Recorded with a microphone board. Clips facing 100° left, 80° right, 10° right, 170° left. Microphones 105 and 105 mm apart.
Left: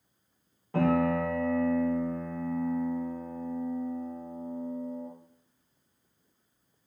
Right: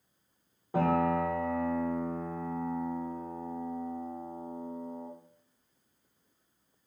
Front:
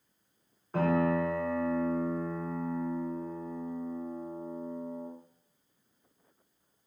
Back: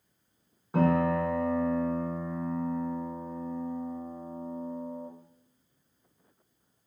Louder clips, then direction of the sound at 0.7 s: Left 2 dB, back 2 dB; 125° right.